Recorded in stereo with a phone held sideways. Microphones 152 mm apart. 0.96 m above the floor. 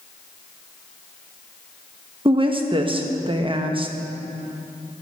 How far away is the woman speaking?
About 1.0 m.